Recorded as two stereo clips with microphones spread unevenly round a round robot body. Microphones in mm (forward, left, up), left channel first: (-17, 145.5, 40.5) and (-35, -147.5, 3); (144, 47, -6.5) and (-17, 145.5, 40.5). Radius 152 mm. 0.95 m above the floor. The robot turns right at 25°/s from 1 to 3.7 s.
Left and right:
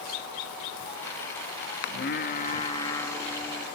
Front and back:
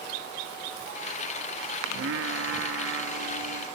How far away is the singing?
About 1.4 m.